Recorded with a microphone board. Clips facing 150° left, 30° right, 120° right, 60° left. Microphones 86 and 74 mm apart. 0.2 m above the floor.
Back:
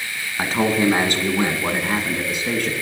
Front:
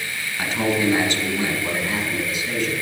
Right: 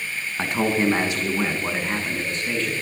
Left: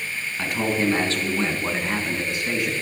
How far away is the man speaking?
About 2.0 m.